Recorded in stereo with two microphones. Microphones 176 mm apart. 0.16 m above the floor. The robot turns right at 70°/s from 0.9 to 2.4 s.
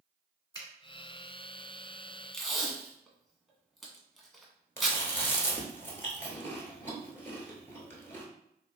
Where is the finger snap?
25° left (ahead or behind), 1.1 m.